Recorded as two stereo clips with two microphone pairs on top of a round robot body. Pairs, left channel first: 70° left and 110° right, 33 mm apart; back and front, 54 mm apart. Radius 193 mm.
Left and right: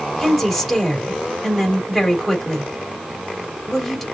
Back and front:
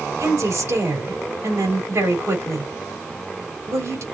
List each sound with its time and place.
0.2 s a woman speaking: 15° right, 4 m